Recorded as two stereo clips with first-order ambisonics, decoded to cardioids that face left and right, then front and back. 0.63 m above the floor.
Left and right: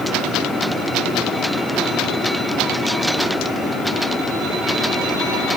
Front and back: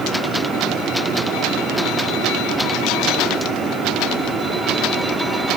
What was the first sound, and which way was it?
Only background noise.